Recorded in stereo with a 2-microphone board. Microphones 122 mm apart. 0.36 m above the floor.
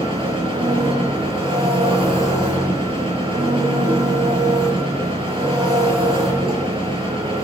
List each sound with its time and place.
0.0 s an engine running: 45° right (ahead or behind), 6 m